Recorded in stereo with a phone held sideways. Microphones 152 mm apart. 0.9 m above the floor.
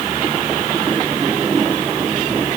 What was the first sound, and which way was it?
Only background noise.